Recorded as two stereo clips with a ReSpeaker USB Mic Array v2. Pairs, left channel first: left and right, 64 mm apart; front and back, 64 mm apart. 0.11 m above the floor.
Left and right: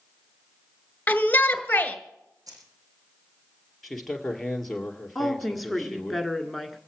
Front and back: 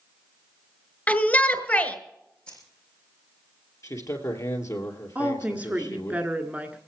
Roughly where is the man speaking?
Ahead.